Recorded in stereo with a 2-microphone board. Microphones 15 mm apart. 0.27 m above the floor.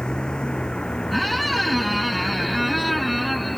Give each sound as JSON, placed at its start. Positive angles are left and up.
{"t": 0.0, "sound": "a vehicle", "side_deg": 60}
{"t": 1.1, "sound": "a squeak", "side_deg": 0}